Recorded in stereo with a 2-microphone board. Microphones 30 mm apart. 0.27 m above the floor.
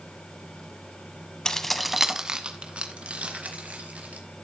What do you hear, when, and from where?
1.4 s keys jangling: 25° left (ahead or behind), 1.3 m; by 4.5 s 60° right (ahead or behind), 4.5 m